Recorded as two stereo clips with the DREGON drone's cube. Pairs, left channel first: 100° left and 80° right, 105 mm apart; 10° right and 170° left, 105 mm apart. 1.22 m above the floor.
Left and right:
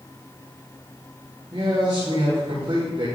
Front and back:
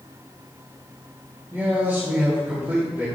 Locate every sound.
1.5 s a man speaking: 120° right, 3.5 m